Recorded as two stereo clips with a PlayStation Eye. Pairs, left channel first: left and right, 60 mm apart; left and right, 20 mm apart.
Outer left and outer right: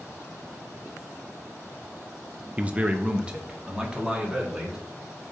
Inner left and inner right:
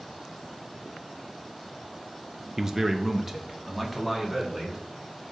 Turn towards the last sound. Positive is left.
turn(degrees=-15)  # may be behind; listen again after turning